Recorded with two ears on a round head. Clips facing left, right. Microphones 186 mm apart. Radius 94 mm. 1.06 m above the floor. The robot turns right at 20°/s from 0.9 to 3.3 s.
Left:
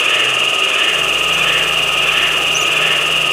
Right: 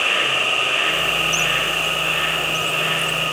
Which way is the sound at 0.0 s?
50° left.